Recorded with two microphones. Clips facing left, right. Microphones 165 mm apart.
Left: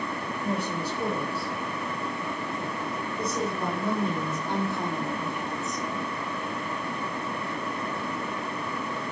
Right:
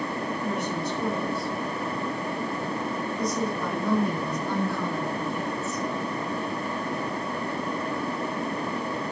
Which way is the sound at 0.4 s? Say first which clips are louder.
Left 2 dB; 35° left (ahead or behind).